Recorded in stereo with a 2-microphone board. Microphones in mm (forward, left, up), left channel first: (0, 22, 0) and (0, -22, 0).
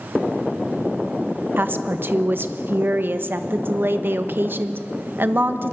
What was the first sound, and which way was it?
A woman speaking, 50° right (ahead or behind).